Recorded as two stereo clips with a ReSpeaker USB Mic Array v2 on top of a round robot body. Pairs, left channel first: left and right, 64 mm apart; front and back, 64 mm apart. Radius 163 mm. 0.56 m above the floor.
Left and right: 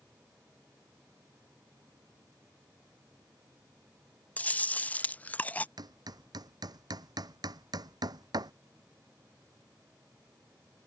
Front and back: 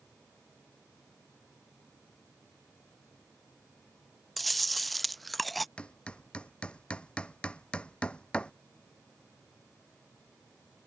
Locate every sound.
4.4 s chewing: 85° left
5.8 s hammering: 75° right